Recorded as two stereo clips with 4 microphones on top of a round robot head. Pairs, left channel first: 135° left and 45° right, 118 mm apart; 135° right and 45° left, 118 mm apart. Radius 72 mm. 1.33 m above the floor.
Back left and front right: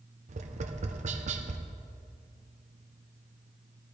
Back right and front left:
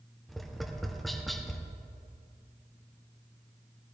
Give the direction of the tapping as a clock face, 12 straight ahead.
2 o'clock.